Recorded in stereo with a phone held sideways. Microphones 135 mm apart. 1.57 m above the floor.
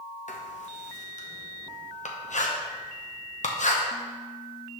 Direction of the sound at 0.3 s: 65° left (ahead or behind).